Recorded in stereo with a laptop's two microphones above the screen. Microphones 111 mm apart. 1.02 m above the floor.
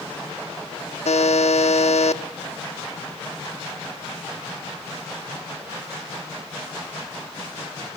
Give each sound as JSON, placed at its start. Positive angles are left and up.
{"t": 1.1, "sound": "a buzzer", "side_deg": 80, "distance_m": 1.4}